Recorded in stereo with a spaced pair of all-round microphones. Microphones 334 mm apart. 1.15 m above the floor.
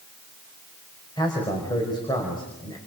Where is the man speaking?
15° left (ahead or behind), 5 m.